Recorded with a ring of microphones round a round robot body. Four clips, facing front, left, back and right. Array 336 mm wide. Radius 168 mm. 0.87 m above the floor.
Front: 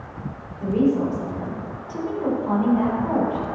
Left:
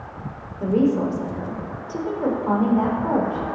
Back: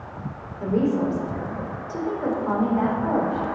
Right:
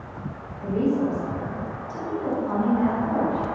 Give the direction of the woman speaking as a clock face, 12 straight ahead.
9 o'clock.